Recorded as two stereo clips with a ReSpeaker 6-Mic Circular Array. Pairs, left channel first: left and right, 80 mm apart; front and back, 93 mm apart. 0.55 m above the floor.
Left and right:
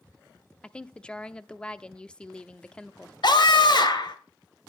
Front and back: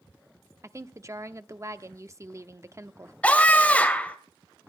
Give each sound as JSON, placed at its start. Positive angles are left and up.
{"t": 0.6, "sound": "a woman speaking", "azimuth_deg": 160, "distance_m": 0.8}
{"t": 3.2, "sound": "a scream", "azimuth_deg": 75, "distance_m": 3.0}